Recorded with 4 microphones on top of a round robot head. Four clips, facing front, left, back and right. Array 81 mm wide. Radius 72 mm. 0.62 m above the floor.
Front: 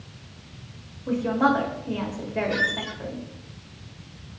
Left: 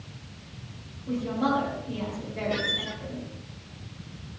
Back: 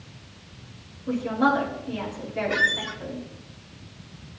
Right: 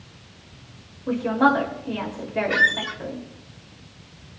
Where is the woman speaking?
60° right, 4.5 m.